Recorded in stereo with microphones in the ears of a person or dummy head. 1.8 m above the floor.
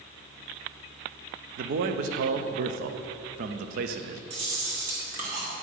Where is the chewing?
55° right (ahead or behind), 2.0 m.